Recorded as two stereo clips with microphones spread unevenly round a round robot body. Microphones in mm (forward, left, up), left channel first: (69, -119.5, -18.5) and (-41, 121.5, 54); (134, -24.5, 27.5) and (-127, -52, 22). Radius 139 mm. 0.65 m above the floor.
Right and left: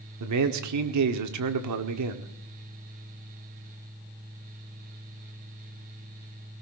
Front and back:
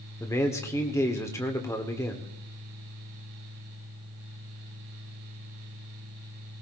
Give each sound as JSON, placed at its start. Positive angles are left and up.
{"t": 0.2, "sound": "a man speaking", "azimuth_deg": 85, "distance_m": 1.6}